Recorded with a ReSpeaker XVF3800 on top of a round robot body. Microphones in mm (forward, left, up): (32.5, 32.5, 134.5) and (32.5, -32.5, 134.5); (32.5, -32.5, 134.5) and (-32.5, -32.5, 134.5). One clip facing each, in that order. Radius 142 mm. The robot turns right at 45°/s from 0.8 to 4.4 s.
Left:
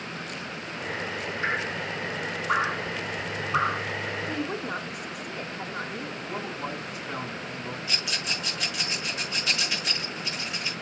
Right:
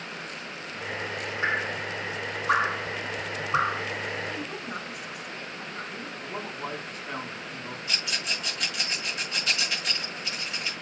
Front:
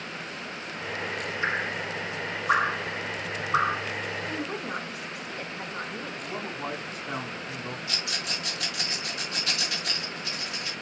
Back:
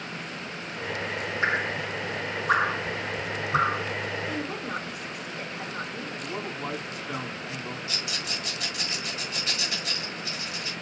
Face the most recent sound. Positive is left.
turn(degrees=0)